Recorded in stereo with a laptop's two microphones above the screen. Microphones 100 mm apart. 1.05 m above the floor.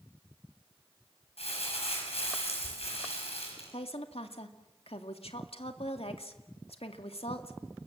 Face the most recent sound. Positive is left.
turn(degrees=80)